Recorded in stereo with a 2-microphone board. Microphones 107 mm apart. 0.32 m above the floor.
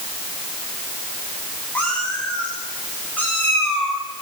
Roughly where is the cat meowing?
Centre.